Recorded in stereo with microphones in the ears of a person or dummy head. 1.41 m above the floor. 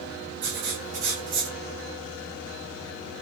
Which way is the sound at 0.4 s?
40° right (ahead or behind).